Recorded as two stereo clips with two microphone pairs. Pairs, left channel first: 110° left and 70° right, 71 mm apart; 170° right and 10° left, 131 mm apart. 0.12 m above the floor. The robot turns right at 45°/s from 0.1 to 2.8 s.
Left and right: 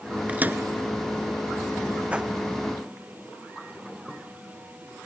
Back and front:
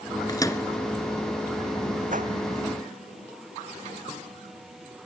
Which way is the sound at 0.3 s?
130° right.